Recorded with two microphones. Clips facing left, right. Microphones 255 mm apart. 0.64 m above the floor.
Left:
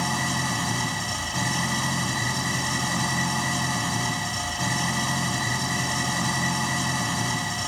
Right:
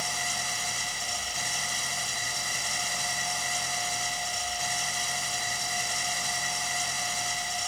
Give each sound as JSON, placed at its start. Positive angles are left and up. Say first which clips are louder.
{"t": 0.0, "sound": "an engine running", "louder": "left 11 dB", "side_deg": 75}